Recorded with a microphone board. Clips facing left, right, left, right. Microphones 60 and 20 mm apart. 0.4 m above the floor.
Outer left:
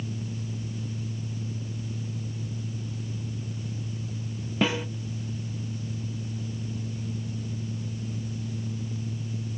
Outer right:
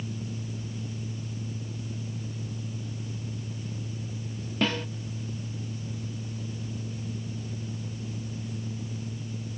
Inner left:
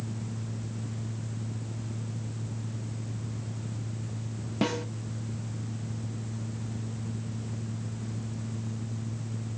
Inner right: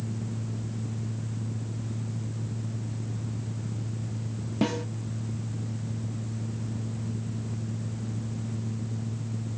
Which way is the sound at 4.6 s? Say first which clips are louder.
Outer left 2 dB, inner right 1 dB; 10° left (ahead or behind).